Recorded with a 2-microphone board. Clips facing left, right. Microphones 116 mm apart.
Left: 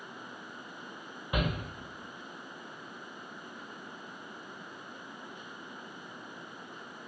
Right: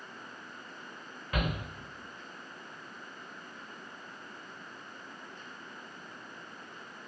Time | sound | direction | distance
1.3 | a shout | 20° left (ahead or behind) | 0.9 m